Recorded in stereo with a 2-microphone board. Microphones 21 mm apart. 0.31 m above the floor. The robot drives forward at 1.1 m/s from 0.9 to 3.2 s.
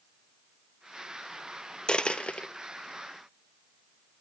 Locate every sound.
1.9 s a dropped coin: 50° left (ahead or behind), 1.0 m; by 2.5 s 80° left, 0.8 m